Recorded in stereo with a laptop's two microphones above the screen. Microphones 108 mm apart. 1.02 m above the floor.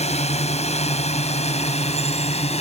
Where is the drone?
85° left; by 2.6 s 75° left (ahead or behind).